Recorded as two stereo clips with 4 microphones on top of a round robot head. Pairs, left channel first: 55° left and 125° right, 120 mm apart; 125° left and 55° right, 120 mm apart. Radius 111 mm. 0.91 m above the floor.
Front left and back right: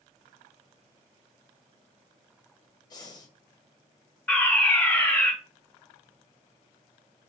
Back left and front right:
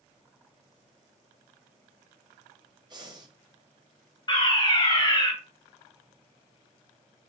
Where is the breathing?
Straight ahead, 0.8 m.